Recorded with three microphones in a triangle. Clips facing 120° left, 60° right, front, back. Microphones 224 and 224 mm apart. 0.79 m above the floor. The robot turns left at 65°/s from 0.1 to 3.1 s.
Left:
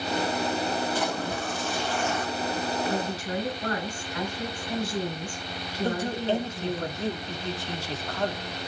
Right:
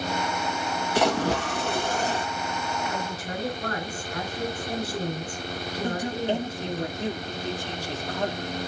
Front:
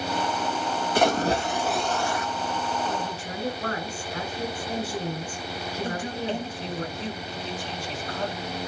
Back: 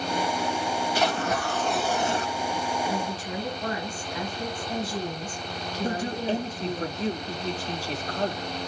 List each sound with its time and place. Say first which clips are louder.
0.9 s a splash: right 6 dB, front 7 dB; 40° right, 0.8 m; by 2.3 s 125° right, 0.8 m
2.9 s a woman speaking: left 3 dB, back 1 dB; 10° right, 8 m; by 6.8 s 25° right, 8 m
5.8 s a man speaking: left 1 dB, back 4 dB; 130° right, 2 m